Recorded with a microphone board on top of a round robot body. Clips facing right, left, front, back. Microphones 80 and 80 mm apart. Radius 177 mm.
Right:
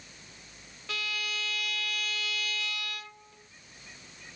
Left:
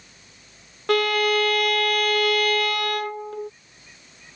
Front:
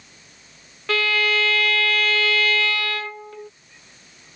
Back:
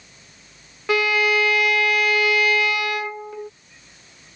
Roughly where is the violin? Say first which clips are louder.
Left 18 dB, back 3 dB; left.